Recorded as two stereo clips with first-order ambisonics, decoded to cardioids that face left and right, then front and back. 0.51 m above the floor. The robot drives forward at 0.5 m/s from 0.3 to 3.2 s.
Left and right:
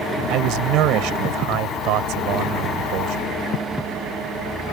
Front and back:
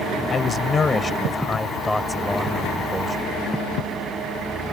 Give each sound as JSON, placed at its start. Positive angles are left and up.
{"t": 0.3, "sound": "a man speaking", "azimuth_deg": -65}